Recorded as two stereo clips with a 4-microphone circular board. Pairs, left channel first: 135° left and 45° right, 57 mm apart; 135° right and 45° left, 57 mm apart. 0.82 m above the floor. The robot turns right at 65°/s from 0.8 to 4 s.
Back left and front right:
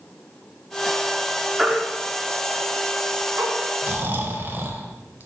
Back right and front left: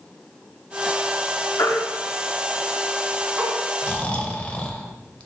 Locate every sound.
1.6 s a baby crying: 125° right, 0.9 m; by 3.5 s straight ahead, 0.9 m
3.8 s snoring: 85° right, 0.7 m; by 5.3 s 75° right, 0.7 m